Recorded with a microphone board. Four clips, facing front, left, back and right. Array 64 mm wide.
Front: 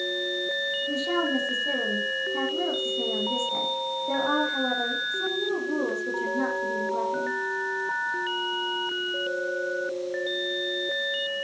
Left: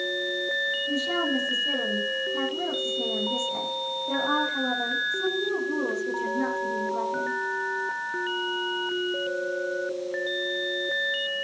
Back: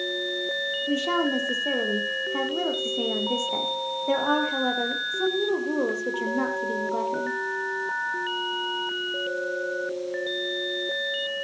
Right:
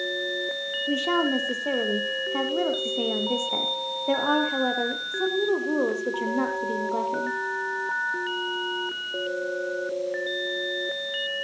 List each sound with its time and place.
0.9 s a woman speaking: 120° right, 5 m